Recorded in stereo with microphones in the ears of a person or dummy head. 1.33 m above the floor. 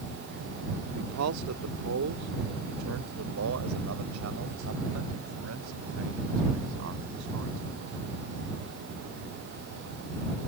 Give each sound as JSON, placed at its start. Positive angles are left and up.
{"t": 0.9, "sound": "a man speaking", "side_deg": -90}